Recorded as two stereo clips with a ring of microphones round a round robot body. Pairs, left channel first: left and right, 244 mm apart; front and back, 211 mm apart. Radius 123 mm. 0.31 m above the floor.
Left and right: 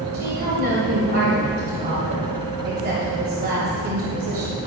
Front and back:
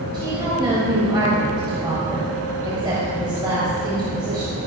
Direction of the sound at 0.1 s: 120° right.